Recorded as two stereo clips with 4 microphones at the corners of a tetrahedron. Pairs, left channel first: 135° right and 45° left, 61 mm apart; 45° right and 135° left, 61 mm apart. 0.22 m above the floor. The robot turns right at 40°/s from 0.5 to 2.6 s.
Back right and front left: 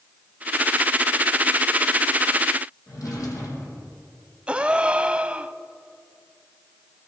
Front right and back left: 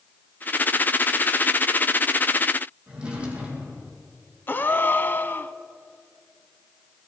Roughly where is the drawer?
Behind right.